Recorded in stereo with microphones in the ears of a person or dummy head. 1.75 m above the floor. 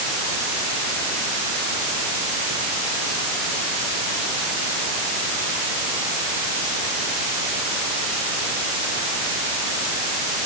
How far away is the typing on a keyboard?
No typing on a keyboard in this recording.